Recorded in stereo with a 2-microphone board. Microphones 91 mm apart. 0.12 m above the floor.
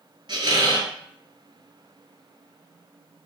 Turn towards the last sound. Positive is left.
turn(degrees=-55)  # may be behind; listen again after turning